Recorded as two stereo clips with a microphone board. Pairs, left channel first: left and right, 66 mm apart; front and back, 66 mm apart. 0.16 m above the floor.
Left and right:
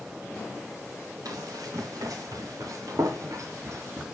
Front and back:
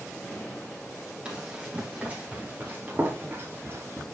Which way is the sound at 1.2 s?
105° right.